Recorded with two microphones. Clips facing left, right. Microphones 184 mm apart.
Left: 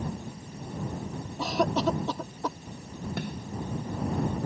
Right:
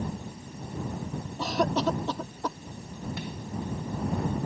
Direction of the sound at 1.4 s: 5° left (ahead or behind).